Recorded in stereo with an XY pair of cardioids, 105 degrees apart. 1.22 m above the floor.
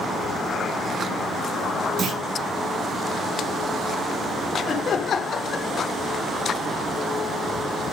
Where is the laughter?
45° left, 0.9 m.